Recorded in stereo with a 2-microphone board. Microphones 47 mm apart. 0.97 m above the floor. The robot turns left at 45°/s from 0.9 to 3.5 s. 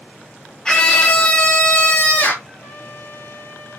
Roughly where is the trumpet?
Behind left.